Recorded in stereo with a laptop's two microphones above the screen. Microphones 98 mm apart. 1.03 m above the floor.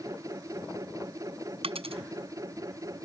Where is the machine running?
35° right (ahead or behind).